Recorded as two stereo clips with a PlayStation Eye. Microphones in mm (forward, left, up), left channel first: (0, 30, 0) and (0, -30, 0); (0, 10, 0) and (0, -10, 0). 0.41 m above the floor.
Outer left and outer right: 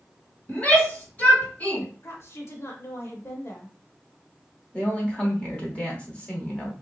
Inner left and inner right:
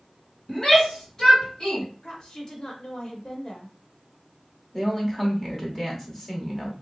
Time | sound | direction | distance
0.5 | a shout | 30° left (ahead or behind) | 2.5 m
2.0 | a woman speaking | 45° left (ahead or behind) | 1.1 m
4.7 | a woman speaking | 20° left (ahead or behind) | 1.2 m